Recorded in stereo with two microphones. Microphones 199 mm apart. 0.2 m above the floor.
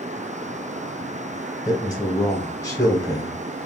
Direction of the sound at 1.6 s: 20° left (ahead or behind).